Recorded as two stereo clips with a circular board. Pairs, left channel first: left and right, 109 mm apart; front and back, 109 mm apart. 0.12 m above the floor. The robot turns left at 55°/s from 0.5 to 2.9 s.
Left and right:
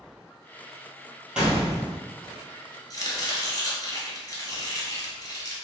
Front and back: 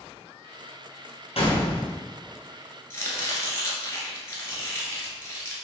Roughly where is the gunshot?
Ahead.